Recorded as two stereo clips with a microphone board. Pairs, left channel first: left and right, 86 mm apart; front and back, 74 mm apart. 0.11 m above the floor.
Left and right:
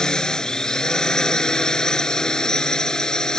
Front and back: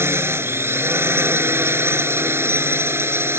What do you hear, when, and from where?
0.0 s a drone: 165° left